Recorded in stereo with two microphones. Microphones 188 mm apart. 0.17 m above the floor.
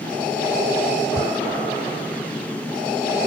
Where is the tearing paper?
40° left (ahead or behind).